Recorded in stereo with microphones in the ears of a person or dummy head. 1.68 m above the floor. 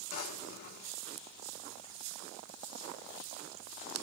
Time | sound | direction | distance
0.1 | a drawer | 60° left (ahead or behind) | 3 m